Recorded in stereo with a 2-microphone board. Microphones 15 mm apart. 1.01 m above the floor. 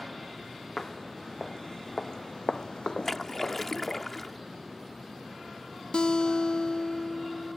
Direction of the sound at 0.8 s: 40° left (ahead or behind).